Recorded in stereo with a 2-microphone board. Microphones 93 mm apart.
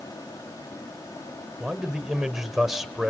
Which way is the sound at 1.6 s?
5° right (ahead or behind).